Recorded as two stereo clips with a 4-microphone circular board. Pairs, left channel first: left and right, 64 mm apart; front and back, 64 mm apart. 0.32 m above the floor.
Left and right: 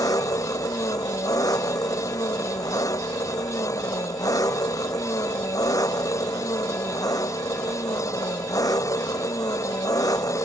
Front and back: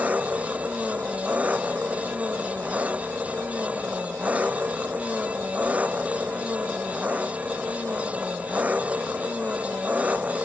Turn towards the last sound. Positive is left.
turn(degrees=110)